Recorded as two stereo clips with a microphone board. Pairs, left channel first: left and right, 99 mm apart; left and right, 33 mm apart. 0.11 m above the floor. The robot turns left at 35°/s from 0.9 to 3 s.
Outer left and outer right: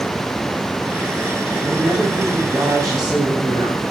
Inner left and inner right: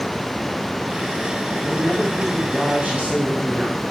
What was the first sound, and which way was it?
A man speaking, 5° left.